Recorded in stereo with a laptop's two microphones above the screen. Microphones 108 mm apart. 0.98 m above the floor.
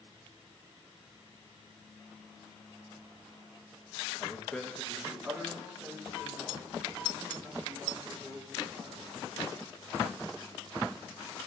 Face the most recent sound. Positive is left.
turn(degrees=-15)  # may be behind; listen again after turning